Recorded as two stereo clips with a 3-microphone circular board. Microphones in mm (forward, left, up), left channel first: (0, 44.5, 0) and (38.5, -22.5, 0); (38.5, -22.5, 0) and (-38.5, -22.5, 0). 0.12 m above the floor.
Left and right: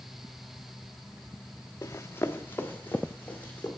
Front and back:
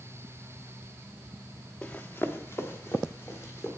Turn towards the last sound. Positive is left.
turn(degrees=50)